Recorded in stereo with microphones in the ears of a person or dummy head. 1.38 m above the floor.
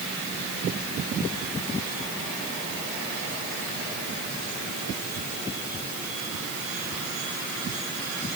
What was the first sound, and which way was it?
Only background noise.